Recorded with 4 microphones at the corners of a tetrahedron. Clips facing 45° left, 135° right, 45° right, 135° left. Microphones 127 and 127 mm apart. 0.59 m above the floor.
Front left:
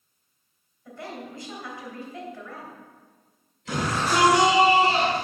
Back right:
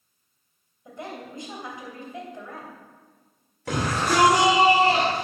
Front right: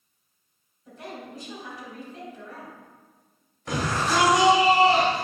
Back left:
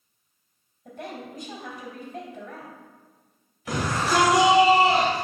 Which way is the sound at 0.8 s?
160° left.